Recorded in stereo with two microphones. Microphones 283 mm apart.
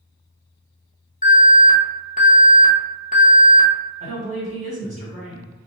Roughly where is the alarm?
Left.